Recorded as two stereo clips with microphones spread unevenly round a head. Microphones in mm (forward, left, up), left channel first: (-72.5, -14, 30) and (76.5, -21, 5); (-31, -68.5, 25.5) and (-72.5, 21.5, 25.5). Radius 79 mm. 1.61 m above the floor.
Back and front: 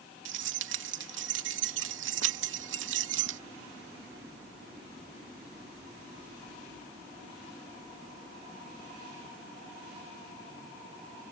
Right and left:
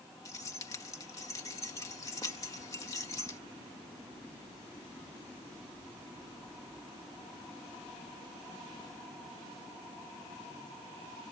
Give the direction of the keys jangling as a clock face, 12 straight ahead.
12 o'clock.